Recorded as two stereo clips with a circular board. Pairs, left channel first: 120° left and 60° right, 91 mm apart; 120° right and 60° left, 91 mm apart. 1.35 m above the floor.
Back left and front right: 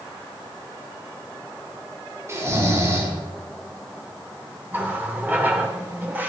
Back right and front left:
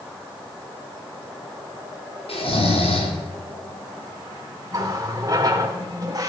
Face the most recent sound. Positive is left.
turn(degrees=10)